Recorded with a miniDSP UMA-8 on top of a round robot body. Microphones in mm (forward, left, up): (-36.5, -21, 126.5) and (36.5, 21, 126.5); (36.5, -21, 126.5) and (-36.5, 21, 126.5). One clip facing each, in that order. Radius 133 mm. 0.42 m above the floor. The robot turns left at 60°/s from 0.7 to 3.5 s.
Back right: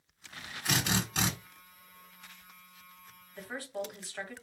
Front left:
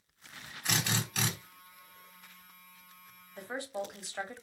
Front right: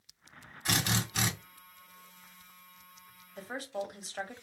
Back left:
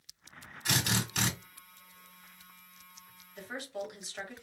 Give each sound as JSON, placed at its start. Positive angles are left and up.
{"t": 0.7, "sound": "a drill", "azimuth_deg": -65, "distance_m": 2.0}
{"t": 3.4, "sound": "a woman speaking", "azimuth_deg": -10, "distance_m": 1.3}